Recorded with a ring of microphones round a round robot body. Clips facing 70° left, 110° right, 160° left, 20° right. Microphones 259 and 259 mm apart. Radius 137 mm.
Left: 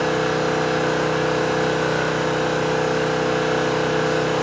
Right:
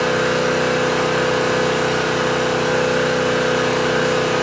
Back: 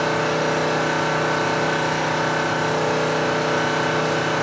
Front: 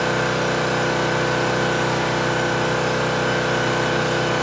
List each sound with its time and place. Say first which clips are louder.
0.0 s an engine running: right 2 dB, even; 65° right, 1.3 m